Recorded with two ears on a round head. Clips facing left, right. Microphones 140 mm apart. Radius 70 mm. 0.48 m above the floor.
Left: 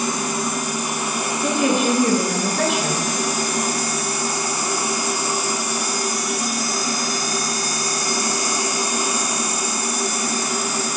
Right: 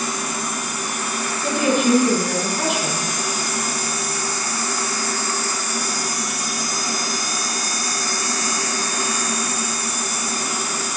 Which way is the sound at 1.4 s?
75° left (ahead or behind).